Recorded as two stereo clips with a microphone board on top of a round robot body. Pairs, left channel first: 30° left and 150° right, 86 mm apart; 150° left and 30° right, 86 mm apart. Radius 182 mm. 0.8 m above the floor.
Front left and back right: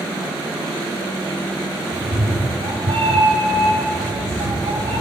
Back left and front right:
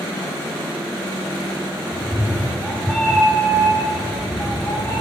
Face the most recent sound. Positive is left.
turn(degrees=-145)